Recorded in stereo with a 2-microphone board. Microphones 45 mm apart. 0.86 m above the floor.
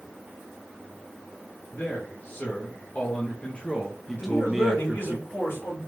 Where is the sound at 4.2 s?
70° left (ahead or behind), 2.5 m.